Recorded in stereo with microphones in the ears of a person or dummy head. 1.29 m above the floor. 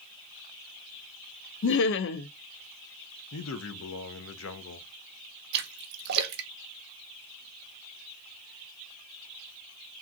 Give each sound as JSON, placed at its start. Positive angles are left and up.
{"t": 1.6, "sound": "laughter", "side_deg": 65, "distance_m": 0.5}
{"t": 3.3, "sound": "a man speaking", "side_deg": 75, "distance_m": 0.7}
{"t": 5.5, "sound": "a splash", "side_deg": -60, "distance_m": 0.8}